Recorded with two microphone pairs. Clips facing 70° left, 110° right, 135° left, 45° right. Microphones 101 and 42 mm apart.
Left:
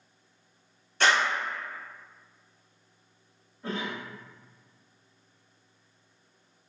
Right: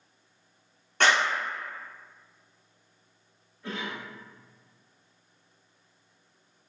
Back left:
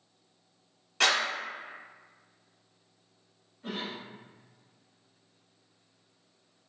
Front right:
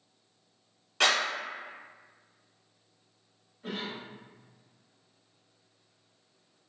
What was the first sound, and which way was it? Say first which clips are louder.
A clap: right 1 dB, even; 135° right.